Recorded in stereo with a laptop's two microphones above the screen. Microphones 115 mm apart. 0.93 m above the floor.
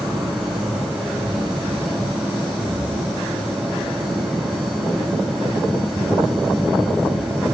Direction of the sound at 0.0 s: 5° right (ahead or behind).